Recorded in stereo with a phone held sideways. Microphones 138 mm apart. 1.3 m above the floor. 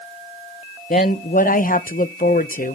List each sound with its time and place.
0.9 s a woman speaking: 85° left, 0.8 m